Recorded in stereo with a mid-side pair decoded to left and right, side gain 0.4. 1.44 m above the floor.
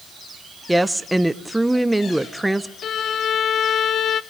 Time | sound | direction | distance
0.7 | a woman speaking | 10° right | 1.0 m
2.8 | a violin | 70° left | 0.7 m